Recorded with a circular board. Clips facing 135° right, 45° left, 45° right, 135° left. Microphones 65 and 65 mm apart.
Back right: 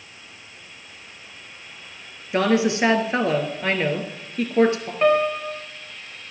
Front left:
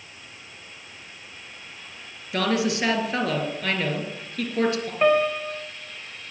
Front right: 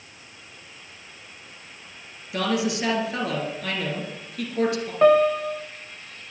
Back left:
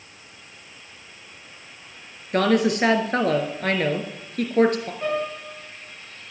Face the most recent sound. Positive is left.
turn(degrees=-40)